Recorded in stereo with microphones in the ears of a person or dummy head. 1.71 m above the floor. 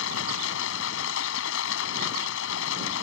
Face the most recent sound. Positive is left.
turn(degrees=85)